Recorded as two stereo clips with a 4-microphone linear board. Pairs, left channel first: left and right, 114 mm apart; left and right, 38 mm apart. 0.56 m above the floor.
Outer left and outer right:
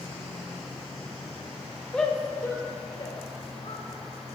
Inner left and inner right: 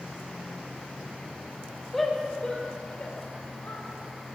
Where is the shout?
5° left (ahead or behind), 2 m; by 3.9 s 65° left (ahead or behind), 3 m.